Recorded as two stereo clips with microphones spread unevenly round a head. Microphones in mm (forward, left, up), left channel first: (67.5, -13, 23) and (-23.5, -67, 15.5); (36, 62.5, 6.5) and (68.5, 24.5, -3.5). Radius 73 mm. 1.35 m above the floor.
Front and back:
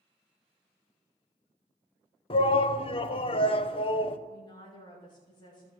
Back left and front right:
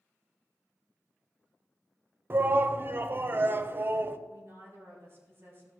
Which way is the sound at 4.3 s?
20° right.